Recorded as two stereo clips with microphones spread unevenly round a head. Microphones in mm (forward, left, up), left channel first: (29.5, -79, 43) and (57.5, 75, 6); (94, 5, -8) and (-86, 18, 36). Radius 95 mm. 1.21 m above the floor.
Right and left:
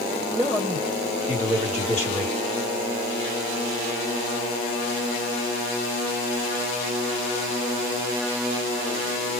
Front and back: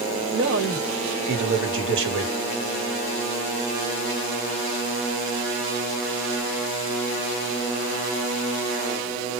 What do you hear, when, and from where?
0.3 s a man speaking: 155° left, 1.9 m